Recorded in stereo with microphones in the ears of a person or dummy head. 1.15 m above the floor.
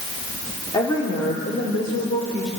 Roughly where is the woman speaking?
Left.